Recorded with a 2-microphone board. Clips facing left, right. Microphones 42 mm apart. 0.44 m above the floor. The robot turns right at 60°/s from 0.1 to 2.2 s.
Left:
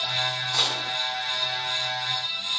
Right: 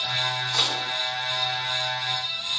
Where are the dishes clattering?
5° right (ahead or behind), 0.6 m; by 0.9 s 15° right (ahead or behind), 0.6 m.